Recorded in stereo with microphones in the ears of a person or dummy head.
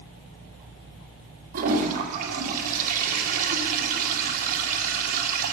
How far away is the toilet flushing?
About 1.4 m.